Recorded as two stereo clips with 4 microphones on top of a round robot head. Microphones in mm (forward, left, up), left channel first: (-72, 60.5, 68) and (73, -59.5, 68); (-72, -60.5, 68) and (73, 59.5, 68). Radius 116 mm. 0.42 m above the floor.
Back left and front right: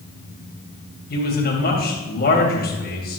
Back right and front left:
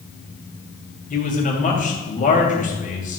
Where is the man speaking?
175° left, 3 m.